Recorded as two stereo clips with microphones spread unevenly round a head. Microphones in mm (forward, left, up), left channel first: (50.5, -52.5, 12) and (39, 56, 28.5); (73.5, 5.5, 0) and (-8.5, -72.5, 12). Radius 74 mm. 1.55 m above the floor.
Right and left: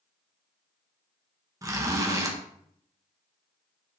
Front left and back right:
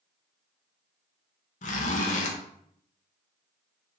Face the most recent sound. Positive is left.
turn(degrees=40)